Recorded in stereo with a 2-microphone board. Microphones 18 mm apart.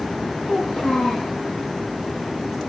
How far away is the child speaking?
About 7.5 m.